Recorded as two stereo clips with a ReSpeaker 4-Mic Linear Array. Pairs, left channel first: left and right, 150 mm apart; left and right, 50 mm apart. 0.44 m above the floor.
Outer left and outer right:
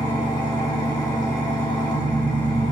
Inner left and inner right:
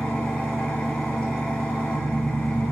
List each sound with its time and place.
0.0 s an engine running: 25° left (ahead or behind), 0.9 m